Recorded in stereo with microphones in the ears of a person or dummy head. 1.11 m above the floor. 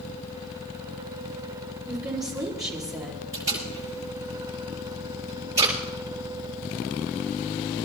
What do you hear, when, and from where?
1.9 s a woman speaking: 10° right (ahead or behind), 4 m
3.3 s tape being pulled: 25° right (ahead or behind), 9 m